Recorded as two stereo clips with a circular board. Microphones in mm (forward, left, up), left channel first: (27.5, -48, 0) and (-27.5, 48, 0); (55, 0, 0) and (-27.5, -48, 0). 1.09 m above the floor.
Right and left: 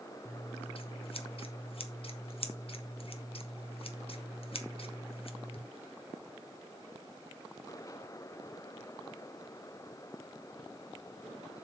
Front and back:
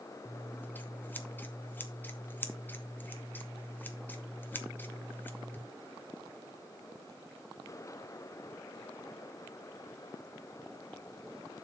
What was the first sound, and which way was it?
Scissors, 40° right.